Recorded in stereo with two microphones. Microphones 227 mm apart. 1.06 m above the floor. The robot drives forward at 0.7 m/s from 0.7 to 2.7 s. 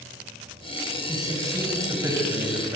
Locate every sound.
1.1 s a man speaking: 15° right (ahead or behind), 6 m